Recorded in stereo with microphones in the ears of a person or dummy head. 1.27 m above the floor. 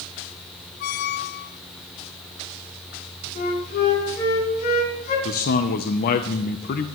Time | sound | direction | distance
0.8 | a squeak | 50° left (ahead or behind) | 0.5 m
3.4 | a flute | 50° left (ahead or behind) | 9.5 m
5.2 | a man speaking | 45° left (ahead or behind) | 0.7 m